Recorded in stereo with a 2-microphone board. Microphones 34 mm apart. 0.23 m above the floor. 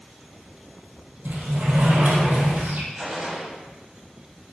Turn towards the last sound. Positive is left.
turn(degrees=-10)  # may be behind; listen again after turning